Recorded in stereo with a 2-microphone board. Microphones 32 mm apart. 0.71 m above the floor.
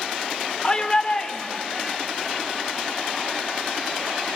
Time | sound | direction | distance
0.6 | a shout | 30° left (ahead or behind) | 2.5 m